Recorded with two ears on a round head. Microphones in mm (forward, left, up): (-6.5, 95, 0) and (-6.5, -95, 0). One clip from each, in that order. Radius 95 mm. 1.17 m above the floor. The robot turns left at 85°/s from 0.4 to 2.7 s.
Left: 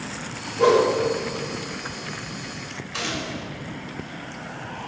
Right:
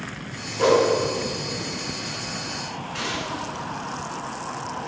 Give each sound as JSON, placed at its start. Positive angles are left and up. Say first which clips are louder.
{"t": 0.6, "sound": "a whoosh", "louder": "left 1 dB", "side_deg": -20, "distance_m": 2.0}
{"t": 2.9, "sound": "a gunshot", "louder": "even", "side_deg": 65, "distance_m": 2.0}